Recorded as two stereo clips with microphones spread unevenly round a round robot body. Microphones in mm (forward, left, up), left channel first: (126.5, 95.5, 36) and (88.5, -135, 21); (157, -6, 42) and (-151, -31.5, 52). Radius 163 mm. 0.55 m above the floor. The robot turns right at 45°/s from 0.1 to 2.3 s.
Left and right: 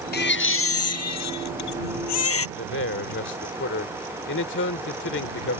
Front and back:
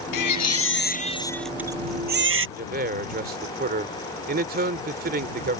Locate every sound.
0.1 s a baby crying: 35° left; by 2.5 s 130° left
2.6 s a man speaking: 125° left